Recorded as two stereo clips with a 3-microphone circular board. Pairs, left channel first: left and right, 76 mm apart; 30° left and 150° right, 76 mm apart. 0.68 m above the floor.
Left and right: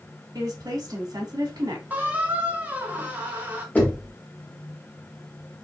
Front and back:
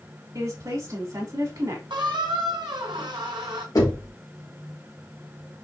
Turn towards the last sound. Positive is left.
turn(degrees=25)